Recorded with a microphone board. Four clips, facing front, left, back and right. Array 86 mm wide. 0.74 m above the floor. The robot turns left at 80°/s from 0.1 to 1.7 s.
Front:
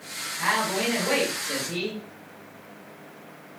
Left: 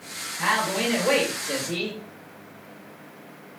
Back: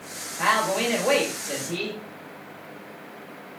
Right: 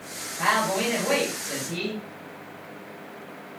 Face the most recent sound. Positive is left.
turn(degrees=95)